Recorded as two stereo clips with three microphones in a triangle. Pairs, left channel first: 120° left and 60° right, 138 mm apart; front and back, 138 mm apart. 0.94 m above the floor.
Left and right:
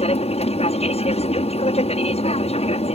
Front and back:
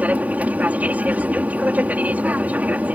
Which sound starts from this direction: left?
An aircraft, at 0.0 s.